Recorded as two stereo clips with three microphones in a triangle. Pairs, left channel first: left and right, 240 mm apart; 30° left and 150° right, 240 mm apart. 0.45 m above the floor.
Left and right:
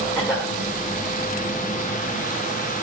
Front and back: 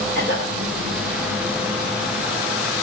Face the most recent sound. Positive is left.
turn(degrees=15)